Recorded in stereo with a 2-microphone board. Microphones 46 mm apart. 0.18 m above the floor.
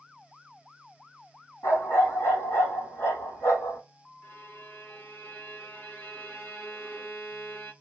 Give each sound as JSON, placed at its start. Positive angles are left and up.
{"t": 1.6, "sound": "a dog barking", "side_deg": 80, "distance_m": 2.5}
{"t": 4.2, "sound": "a violin", "side_deg": 45, "distance_m": 1.7}